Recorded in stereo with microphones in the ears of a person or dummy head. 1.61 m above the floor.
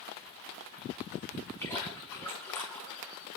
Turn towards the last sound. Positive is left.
turn(degrees=15)  # may be behind; listen again after turning